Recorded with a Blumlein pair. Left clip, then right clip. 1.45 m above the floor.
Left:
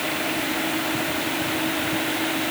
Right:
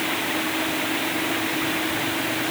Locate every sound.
Only background noise.